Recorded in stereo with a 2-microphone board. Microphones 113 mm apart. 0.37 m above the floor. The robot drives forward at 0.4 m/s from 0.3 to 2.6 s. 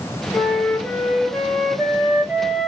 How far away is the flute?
About 1.4 m.